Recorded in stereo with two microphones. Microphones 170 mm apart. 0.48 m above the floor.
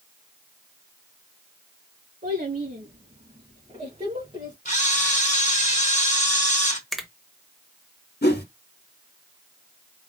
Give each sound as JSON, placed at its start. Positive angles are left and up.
{"t": 2.2, "sound": "a child speaking", "side_deg": -55, "distance_m": 3.5}
{"t": 4.7, "sound": "a camera shutter", "side_deg": 45, "distance_m": 1.2}
{"t": 6.9, "sound": "a finger snap", "side_deg": 0, "distance_m": 1.1}
{"t": 8.2, "sound": "a whoosh", "side_deg": 75, "distance_m": 1.0}